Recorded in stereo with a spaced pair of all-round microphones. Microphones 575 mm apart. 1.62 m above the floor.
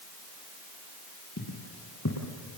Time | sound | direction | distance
1.4 | footsteps | 30° left (ahead or behind) | 2.5 m